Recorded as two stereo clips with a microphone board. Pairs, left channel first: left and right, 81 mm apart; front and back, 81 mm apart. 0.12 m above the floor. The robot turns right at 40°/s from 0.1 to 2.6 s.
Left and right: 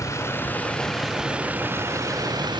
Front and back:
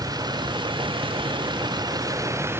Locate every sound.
0.0 s a vehicle: 145° left; by 2.6 s 120° right